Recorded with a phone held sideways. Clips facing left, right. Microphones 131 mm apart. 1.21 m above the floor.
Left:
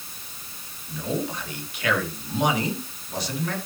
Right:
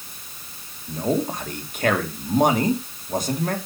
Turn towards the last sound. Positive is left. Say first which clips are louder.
# right 5 dB
turn(degrees=-45)  # may be behind; listen again after turning